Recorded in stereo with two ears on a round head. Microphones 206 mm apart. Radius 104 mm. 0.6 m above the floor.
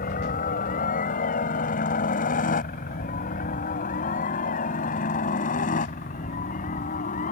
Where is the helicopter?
35° left (ahead or behind).